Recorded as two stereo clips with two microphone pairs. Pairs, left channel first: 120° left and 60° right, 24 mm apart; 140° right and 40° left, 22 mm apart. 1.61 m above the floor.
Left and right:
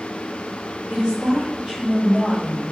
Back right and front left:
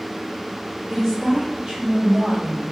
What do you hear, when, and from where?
0.9 s a woman speaking: 45° right, 1.4 m; by 2.6 s 50° left, 1.0 m